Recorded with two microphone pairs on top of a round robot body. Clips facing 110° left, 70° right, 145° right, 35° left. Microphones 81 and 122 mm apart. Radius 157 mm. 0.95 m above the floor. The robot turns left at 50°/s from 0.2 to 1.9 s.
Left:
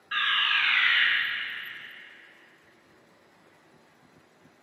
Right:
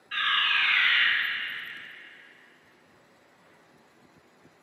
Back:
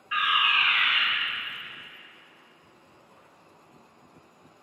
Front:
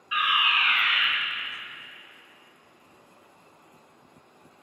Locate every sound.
0.1 s a fire alarm: 95° left, 1.9 m; by 1.1 s 55° left, 1.9 m